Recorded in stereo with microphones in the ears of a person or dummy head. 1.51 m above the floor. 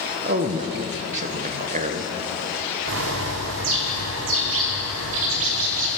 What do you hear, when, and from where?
0.2 s a man speaking: 40° right (ahead or behind), 0.8 m
2.9 s a bird: 75° right (ahead or behind), 0.9 m